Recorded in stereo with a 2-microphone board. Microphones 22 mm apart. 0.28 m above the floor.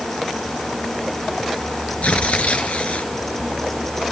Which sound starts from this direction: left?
Tearing paper, at 2.0 s.